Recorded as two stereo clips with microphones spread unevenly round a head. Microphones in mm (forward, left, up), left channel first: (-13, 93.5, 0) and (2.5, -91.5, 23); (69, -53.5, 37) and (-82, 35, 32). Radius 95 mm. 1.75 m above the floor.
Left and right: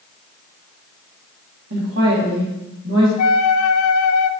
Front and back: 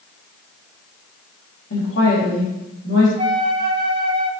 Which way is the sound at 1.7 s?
55° right.